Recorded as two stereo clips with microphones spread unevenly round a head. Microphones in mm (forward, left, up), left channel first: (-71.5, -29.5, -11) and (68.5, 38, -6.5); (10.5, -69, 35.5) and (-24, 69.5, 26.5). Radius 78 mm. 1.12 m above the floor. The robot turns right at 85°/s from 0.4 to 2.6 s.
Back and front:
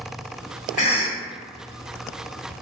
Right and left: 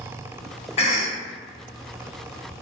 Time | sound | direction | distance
0.8 | a cough | 120° right | 0.9 m